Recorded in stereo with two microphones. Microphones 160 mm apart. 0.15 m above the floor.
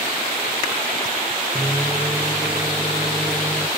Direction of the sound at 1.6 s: 10° right (ahead or behind).